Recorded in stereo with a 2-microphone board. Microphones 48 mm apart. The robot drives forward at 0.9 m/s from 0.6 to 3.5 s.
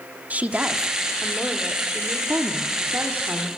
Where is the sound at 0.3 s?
30° right (ahead or behind), 1.5 m; by 2.2 s 15° right (ahead or behind), 3 m.